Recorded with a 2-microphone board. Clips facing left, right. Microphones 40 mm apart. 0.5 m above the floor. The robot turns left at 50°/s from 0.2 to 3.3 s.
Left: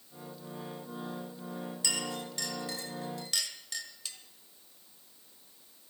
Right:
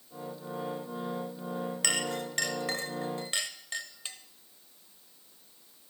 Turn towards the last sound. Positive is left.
turn(degrees=-35)  # may be behind; listen again after turning